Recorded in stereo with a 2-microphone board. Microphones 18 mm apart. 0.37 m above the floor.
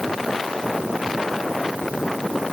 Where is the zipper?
No zipper in this recording.